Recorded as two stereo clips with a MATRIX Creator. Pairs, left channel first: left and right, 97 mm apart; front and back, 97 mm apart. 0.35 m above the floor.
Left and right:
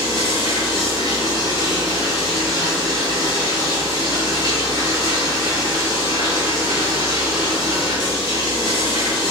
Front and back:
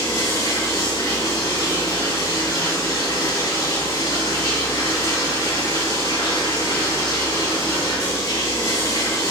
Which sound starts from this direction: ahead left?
Running water, at 0.0 s.